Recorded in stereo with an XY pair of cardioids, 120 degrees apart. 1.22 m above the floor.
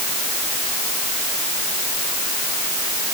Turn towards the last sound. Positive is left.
No sound to turn to.